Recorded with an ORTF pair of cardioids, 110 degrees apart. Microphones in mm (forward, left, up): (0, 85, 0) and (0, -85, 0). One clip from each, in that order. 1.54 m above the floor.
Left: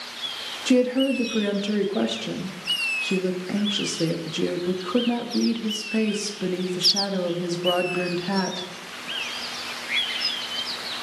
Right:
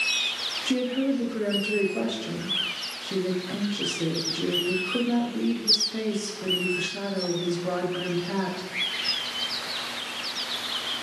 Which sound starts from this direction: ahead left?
A woman speaking, at 0.7 s.